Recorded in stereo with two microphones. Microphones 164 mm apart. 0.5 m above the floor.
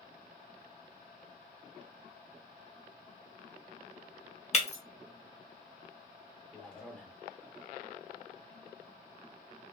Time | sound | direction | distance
4.5 | breaking glass | 40° left (ahead or behind) | 0.8 m
6.5 | a man speaking | 5° left (ahead or behind) | 0.7 m